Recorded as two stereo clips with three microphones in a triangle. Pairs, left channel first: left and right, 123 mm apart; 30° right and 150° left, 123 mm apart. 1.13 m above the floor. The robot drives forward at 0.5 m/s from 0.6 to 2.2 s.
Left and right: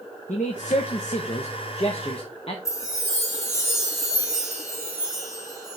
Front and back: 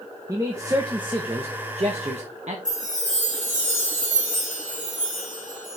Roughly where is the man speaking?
Left.